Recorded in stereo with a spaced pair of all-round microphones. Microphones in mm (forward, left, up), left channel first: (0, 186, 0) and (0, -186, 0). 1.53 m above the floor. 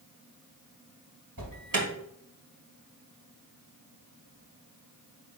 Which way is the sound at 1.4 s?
60° right (ahead or behind).